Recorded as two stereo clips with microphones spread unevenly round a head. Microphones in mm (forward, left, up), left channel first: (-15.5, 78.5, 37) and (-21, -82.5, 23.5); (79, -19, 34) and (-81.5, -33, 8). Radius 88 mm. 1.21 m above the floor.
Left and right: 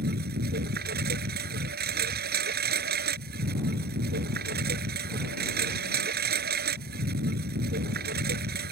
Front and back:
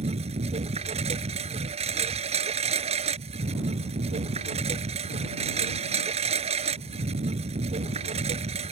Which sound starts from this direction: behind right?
A lawn mower, at 0.0 s.